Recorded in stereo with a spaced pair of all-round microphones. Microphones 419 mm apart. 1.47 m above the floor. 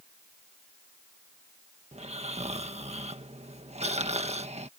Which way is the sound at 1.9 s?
15° right (ahead or behind).